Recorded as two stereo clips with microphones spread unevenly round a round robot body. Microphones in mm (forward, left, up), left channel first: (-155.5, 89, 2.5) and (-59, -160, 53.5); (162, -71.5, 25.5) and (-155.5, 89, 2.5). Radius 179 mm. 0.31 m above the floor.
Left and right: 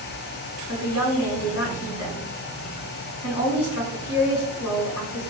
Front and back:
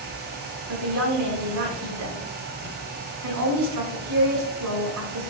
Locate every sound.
0.7 s a woman speaking: 115° left, 3 m